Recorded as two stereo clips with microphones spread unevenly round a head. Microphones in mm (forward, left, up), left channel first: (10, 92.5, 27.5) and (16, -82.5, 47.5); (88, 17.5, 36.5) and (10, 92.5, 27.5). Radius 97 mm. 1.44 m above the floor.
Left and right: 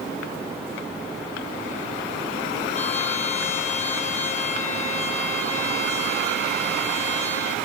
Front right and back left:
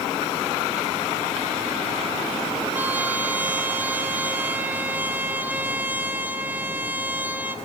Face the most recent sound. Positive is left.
turn(degrees=65)